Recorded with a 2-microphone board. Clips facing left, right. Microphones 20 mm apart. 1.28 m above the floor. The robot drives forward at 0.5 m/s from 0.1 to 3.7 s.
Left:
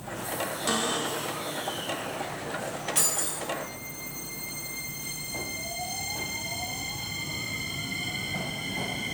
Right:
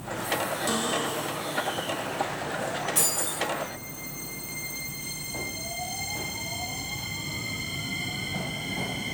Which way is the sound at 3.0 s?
15° left (ahead or behind).